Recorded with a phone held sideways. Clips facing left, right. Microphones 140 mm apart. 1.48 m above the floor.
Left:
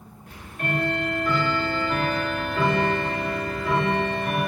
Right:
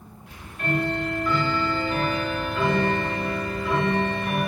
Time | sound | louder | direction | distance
0.3 | ticking | right 1 dB | 50° left (ahead or behind) | 0.7 m